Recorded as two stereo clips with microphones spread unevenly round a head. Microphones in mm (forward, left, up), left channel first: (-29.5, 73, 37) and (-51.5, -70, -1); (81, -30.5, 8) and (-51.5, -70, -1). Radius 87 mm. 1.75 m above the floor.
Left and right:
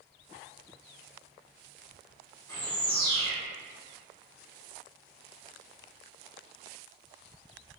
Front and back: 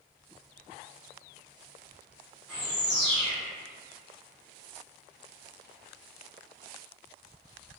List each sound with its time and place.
2.5 s a bird: 105° left, 0.8 m